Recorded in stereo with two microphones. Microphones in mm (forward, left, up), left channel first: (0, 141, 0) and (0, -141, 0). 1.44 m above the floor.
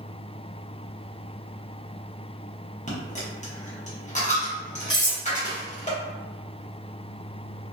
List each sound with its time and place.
2.9 s a dropped coin: 25° left (ahead or behind), 0.8 m
4.9 s cutlery clinking: 15° left (ahead or behind), 1.1 m